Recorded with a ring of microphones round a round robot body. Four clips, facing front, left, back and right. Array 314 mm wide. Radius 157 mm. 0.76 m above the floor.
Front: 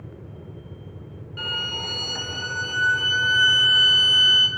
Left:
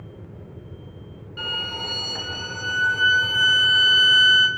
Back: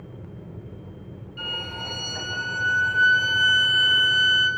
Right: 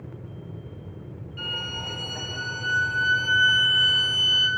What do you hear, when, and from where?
1.4 s a violin: 50° left, 1.9 m